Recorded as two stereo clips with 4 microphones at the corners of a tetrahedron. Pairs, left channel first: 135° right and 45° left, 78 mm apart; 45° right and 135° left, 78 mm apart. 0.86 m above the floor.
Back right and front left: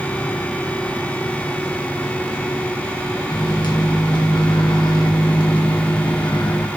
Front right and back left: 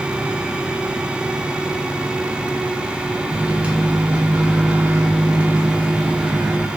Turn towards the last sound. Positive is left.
turn(degrees=-150)